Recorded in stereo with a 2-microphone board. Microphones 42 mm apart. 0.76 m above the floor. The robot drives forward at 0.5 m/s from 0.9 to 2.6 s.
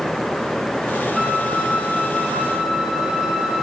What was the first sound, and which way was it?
A flute, 15° right (ahead or behind).